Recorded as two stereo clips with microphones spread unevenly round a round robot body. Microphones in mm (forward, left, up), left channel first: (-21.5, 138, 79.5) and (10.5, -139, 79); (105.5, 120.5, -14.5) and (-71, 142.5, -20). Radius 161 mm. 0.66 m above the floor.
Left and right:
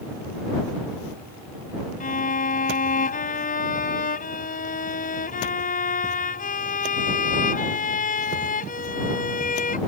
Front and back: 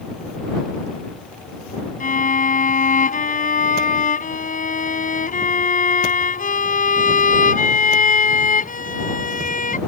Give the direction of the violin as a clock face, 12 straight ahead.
11 o'clock.